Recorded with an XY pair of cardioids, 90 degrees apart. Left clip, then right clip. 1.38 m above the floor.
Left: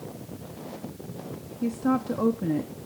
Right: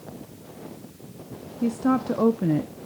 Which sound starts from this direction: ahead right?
A woman speaking, at 1.6 s.